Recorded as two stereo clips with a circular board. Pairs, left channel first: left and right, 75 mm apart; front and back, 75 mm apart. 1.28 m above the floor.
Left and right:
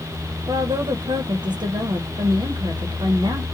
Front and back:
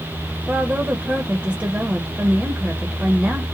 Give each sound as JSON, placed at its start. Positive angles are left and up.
{"t": 0.5, "sound": "a woman speaking", "azimuth_deg": -105, "distance_m": 0.8}